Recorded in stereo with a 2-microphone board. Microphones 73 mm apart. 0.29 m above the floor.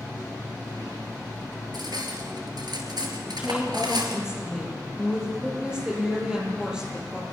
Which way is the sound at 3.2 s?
10° right (ahead or behind).